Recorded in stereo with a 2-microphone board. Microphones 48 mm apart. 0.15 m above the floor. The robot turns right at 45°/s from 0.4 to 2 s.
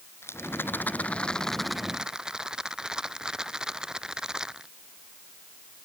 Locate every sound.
0.2 s a rattle: 120° left; by 4.7 s 165° right